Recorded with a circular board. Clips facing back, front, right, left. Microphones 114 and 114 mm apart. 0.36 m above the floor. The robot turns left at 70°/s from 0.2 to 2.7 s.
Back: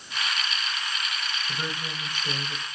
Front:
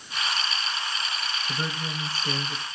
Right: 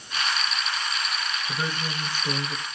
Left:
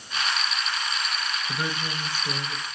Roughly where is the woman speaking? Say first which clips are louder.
Front 3 dB, even; ahead.